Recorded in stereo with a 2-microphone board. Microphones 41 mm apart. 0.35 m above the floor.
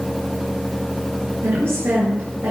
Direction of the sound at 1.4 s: 75° right (ahead or behind).